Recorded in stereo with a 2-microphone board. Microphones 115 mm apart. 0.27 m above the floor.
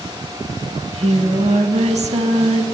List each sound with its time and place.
0.8 s singing: 65° right (ahead or behind), 0.5 m